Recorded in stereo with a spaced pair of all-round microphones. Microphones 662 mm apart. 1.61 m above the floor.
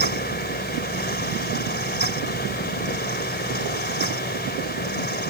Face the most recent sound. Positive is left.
turn(degrees=15)  # may be behind; listen again after turning